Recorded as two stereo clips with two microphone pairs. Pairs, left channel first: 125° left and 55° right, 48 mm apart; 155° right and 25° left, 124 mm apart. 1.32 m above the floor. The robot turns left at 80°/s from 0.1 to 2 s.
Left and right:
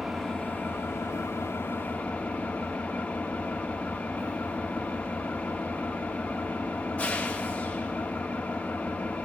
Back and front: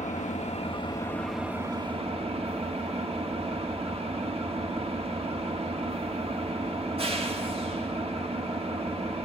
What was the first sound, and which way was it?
An engine running, 145° right.